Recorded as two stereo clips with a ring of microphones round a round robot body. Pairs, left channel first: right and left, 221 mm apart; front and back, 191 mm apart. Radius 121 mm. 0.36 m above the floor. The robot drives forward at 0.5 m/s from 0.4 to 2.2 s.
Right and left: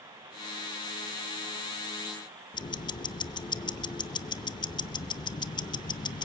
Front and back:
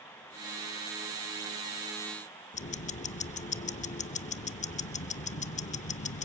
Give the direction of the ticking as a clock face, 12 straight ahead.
1 o'clock.